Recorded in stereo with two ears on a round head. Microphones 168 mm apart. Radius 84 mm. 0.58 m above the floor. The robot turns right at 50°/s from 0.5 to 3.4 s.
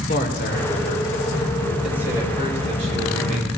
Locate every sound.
0.1 s a man speaking: 120° left, 2 m; by 3.5 s 95° right, 2 m